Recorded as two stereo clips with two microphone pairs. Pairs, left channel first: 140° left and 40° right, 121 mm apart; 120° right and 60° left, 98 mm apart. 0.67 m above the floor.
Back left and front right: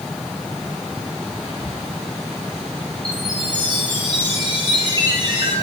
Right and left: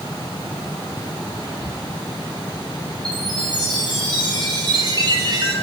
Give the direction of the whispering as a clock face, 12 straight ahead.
9 o'clock.